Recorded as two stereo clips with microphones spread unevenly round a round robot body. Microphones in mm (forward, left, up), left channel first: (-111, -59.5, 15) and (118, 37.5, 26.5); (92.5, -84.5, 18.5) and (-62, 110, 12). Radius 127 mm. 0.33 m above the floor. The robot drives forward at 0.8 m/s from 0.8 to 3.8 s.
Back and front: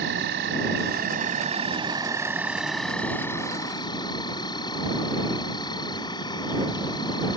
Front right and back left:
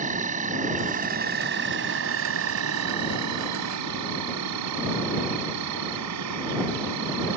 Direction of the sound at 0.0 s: 70° left.